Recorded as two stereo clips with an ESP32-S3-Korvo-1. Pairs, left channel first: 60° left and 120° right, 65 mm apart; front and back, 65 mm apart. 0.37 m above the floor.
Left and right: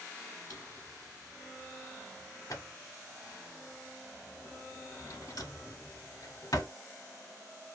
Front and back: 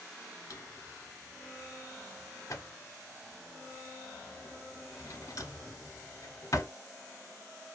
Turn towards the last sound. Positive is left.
turn(degrees=35)